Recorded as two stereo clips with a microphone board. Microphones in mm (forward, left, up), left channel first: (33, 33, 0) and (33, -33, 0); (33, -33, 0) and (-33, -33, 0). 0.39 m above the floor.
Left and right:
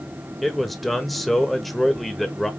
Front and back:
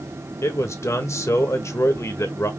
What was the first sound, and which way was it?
A man speaking, straight ahead.